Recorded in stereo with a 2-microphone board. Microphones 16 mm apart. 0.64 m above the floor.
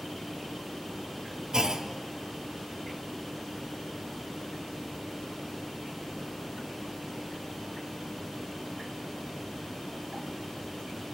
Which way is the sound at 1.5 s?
50° right (ahead or behind).